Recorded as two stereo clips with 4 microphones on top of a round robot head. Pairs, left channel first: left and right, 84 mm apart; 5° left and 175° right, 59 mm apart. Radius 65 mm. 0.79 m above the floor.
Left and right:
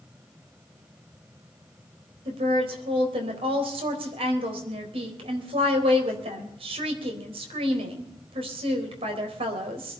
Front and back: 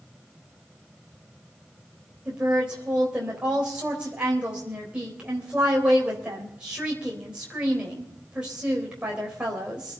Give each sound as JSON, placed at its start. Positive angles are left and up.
{"t": 2.2, "sound": "a woman speaking", "azimuth_deg": -100, "distance_m": 4.0}